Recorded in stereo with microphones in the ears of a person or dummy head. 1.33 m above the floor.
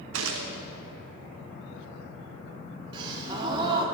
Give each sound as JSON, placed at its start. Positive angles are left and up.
{"t": 0.1, "sound": "a gunshot", "side_deg": -80, "distance_m": 0.7}
{"t": 2.9, "sound": "a gasp", "side_deg": -25, "distance_m": 0.9}